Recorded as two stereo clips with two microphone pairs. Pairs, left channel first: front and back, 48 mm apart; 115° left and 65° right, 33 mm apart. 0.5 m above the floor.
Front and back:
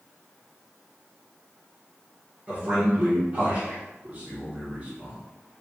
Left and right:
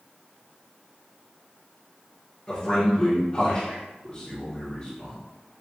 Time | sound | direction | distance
2.5 | a man speaking | 145° left | 1.5 m